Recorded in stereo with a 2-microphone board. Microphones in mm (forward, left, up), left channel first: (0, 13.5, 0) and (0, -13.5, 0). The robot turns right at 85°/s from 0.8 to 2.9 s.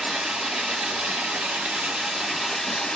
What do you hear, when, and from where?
0.0 s running water: 140° right, 2 m; by 3.0 s 35° left, 2 m